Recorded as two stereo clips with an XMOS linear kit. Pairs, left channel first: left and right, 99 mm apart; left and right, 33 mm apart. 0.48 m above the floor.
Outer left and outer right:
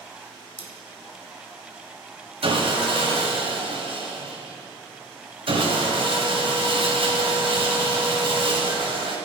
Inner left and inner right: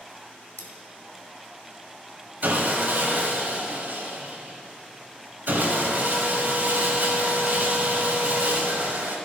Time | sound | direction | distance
0.6 | cutlery clinking | 70° left (ahead or behind) | 1.5 m
2.4 | sawing | 70° right (ahead or behind) | 2.5 m